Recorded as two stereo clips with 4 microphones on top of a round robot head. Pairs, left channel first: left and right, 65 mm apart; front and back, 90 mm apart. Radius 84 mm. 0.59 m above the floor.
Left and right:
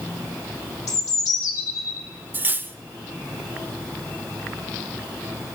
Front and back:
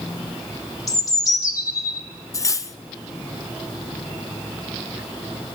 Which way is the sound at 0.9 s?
50° left.